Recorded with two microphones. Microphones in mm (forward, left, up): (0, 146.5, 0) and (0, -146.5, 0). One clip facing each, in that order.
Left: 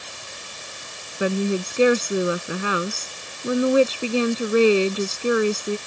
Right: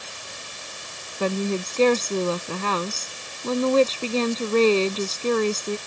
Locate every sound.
1.2 s a woman speaking: 10° left (ahead or behind)